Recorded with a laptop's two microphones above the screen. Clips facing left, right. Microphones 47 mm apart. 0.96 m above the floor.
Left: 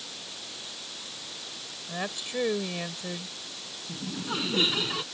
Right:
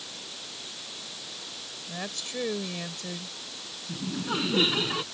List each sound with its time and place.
1.9 s a woman speaking: 15° left (ahead or behind)
3.9 s laughter: 10° right (ahead or behind)